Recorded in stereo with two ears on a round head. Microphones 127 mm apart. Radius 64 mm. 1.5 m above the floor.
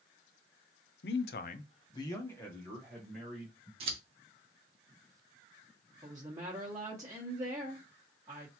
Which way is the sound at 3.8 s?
40° right (ahead or behind).